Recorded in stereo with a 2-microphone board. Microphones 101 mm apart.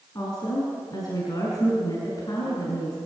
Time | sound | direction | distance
0.1 | a woman speaking | 40° left (ahead or behind) | 6.5 m